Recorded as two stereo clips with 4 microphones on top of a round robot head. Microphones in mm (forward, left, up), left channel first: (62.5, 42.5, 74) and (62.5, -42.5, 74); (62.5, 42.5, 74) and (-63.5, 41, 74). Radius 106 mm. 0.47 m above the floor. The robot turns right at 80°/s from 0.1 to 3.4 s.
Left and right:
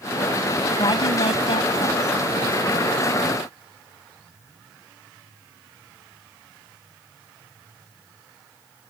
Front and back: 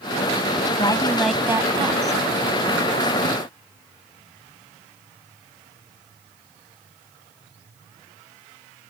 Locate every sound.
0.8 s a woman speaking: 50° left; by 2.2 s 165° left